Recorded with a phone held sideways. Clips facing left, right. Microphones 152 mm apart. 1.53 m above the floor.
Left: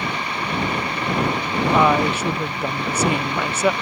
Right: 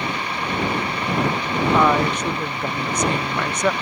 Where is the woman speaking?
5° left (ahead or behind).